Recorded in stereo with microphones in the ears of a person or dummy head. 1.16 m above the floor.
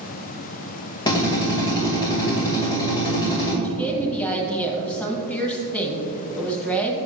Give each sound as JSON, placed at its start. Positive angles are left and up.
{"t": 1.1, "sound": "a drill", "side_deg": 25, "distance_m": 2.5}
{"t": 3.6, "sound": "a woman speaking", "side_deg": 5, "distance_m": 1.2}